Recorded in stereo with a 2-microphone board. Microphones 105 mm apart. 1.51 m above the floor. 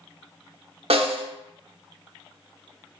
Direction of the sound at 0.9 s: 75° right (ahead or behind).